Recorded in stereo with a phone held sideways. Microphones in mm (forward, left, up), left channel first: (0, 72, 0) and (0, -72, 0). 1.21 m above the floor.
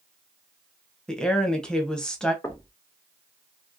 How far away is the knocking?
About 0.8 m.